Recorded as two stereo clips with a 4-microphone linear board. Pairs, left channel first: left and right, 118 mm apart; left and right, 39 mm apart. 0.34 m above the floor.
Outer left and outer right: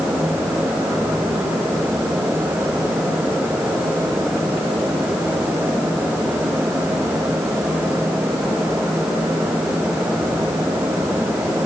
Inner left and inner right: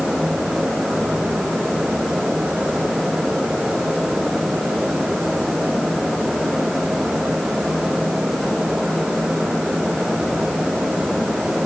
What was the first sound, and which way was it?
Only background noise.